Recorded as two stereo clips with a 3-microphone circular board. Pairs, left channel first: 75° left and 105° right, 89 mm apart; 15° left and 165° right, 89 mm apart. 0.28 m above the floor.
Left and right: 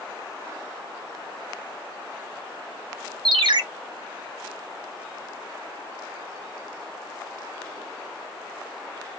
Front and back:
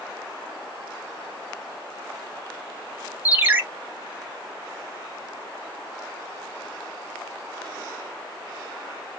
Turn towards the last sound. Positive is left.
turn(degrees=-100)